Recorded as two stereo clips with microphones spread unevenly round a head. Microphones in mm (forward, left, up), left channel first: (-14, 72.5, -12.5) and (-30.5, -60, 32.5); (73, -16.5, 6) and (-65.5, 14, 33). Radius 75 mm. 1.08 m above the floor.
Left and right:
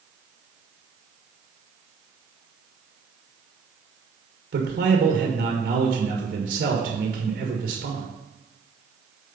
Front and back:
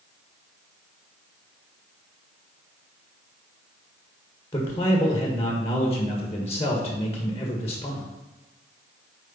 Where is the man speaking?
75° right, 1.5 m.